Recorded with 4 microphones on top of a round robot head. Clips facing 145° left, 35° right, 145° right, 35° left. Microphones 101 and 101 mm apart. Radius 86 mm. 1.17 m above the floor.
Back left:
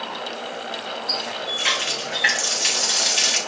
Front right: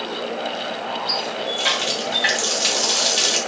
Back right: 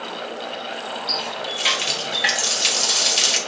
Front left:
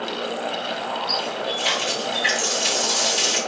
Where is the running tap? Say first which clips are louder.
Front right 4 dB, front left 2 dB; 110° right, 0.9 m.